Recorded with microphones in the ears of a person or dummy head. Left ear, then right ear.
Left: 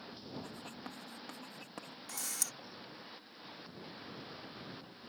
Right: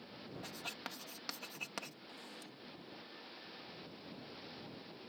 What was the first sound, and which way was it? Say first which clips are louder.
Writing: right 2 dB; 45° right (ahead or behind).